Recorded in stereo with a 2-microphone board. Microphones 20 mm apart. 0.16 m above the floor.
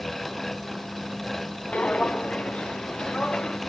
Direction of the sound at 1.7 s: 80° left.